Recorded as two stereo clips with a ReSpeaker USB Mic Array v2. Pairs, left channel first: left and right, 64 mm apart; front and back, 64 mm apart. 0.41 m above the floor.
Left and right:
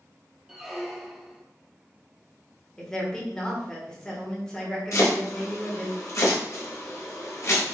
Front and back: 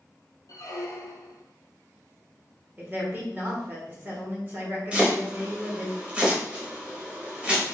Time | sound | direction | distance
0.5 | a squeak | 5° right | 0.8 m
2.8 | a woman speaking | 160° left | 1.3 m
4.9 | chopping | 110° left | 1.2 m